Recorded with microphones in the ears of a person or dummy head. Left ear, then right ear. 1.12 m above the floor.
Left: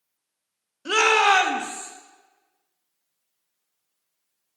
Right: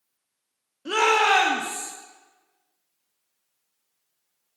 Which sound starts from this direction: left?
A shout, at 0.8 s.